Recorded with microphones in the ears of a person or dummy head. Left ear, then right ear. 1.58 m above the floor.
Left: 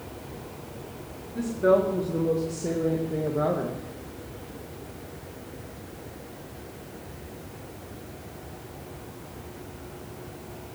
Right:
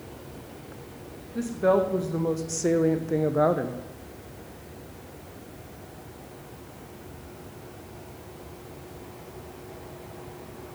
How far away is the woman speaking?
About 1.2 m.